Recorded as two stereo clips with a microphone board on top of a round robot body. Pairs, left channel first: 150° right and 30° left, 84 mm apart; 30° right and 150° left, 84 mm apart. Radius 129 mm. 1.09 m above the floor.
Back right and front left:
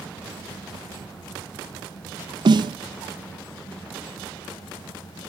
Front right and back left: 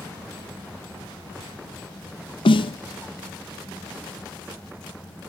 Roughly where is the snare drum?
Ahead.